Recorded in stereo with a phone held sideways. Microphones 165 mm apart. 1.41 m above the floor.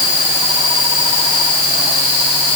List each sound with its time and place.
Only background noise.